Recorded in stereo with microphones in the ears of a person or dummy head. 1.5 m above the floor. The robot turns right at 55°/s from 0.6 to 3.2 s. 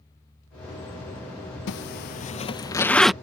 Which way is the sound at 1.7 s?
55° left (ahead or behind).